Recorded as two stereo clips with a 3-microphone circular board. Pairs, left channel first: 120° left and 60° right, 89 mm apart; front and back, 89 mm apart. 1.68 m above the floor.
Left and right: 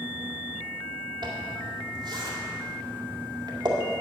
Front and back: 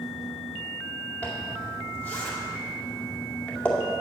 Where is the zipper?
70° right, 2 m.